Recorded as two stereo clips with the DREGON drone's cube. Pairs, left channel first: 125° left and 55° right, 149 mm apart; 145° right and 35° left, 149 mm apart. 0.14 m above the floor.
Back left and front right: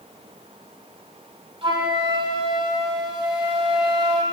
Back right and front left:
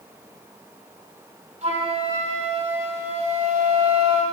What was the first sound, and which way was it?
A flute, 5° right.